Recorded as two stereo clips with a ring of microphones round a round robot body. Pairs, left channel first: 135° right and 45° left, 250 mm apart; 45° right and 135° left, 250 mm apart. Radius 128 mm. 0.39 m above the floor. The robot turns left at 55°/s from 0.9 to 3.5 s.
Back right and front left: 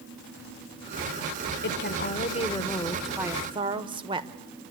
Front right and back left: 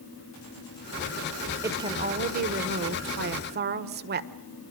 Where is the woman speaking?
150° right, 1.6 m; by 4.3 s 110° left, 1.6 m.